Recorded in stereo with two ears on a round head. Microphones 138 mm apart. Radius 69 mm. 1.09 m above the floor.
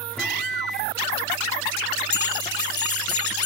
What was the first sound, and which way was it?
A microwave, centre (ahead or behind).